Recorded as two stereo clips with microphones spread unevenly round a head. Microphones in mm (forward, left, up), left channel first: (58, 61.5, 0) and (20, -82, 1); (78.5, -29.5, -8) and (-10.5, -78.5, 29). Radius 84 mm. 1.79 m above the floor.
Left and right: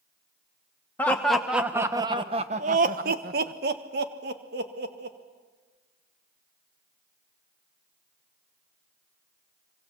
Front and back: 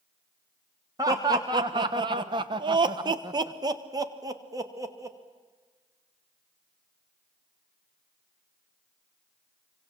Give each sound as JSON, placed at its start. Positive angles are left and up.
{"t": 1.0, "sound": "laughter", "azimuth_deg": 155, "distance_m": 1.4}